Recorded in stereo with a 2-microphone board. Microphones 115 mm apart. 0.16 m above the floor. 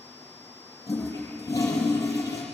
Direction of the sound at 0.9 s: 30° left (ahead or behind).